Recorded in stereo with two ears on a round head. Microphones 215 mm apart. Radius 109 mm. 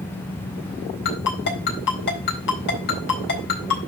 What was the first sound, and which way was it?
A ringtone, 50° left (ahead or behind).